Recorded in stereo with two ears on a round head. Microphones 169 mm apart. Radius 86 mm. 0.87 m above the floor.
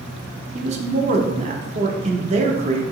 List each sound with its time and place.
0.6 s a man speaking: 35° right (ahead or behind), 0.7 m